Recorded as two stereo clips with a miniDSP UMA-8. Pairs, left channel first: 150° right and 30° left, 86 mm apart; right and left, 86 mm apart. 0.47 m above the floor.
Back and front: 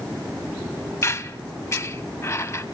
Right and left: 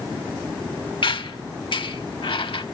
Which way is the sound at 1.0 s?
95° right.